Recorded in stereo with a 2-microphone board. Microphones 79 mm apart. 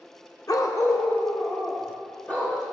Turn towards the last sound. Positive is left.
turn(degrees=20)  # may be behind; listen again after turning